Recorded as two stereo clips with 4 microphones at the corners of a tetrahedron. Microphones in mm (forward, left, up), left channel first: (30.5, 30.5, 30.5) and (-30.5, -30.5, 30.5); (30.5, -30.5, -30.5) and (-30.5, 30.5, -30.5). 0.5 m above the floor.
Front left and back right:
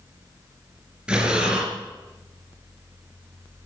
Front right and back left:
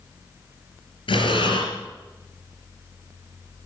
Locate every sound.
1.1 s breathing: 55° right, 3 m